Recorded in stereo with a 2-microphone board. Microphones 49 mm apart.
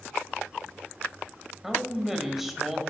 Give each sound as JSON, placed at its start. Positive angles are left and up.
{"t": 1.6, "sound": "a man speaking", "side_deg": -5, "distance_m": 1.4}